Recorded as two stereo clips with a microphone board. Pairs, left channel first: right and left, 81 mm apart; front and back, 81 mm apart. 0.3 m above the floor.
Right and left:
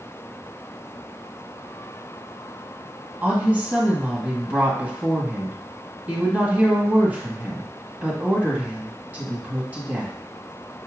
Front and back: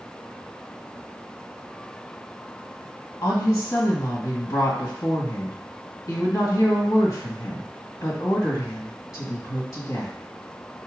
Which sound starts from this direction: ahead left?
A woman speaking, at 3.2 s.